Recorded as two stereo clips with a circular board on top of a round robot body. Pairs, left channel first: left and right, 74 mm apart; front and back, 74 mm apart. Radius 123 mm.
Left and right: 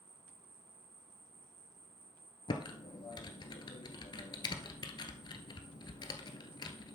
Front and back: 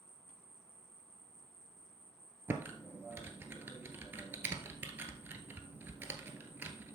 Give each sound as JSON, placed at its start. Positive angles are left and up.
{"t": 0.0, "sound": "an insect", "azimuth_deg": -85, "distance_m": 1.7}
{"t": 2.5, "sound": "typing on a keyboard", "azimuth_deg": 115, "distance_m": 1.1}